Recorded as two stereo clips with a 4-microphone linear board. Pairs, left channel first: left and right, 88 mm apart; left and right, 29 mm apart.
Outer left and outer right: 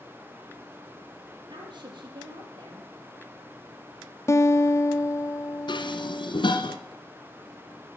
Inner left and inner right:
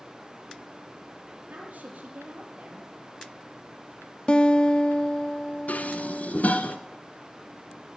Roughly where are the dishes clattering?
Left.